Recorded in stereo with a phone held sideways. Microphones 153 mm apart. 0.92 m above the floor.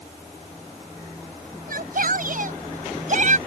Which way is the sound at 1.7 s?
70° right (ahead or behind).